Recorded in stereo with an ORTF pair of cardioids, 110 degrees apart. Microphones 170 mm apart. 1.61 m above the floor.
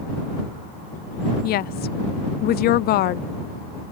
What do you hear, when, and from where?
1.4 s a woman speaking: 65° left